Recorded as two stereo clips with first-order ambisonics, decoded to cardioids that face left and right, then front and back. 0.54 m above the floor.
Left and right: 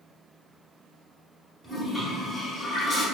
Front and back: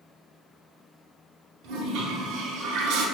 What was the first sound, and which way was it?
A toilet flushing, 165° left.